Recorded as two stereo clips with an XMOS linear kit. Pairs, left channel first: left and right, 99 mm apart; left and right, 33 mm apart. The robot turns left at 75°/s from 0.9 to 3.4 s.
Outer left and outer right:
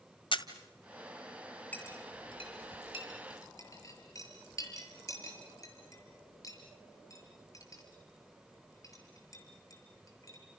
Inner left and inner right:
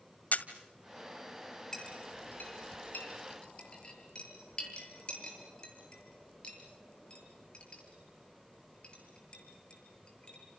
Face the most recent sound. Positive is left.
turn(degrees=35)  # may be behind; listen again after turning